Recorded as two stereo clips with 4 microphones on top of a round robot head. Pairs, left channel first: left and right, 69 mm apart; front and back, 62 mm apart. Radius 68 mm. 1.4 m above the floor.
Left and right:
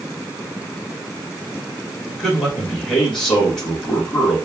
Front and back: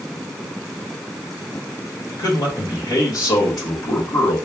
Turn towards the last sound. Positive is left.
turn(degrees=10)